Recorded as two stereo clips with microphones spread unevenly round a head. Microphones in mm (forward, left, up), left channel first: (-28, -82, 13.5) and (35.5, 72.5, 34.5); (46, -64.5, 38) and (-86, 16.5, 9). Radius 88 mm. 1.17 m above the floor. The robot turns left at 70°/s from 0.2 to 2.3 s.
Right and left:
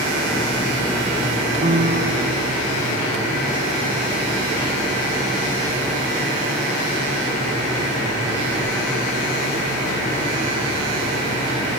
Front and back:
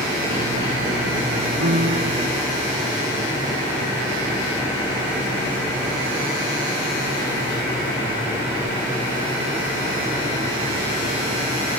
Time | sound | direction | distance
1.6 | a piano | 125° left | ?